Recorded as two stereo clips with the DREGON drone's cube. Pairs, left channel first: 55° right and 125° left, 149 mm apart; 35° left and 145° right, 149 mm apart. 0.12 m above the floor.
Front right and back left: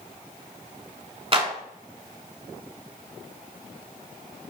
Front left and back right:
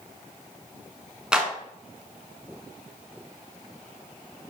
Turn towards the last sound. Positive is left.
turn(degrees=135)